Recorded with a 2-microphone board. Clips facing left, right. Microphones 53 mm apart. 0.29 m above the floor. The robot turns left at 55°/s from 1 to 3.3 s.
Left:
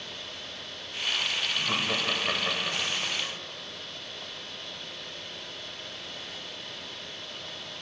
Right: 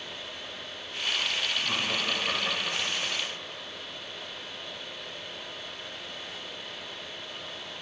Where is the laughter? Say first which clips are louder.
Left 1 dB; 20° left (ahead or behind), 0.9 m; by 3.3 s centre (ahead or behind), 0.9 m.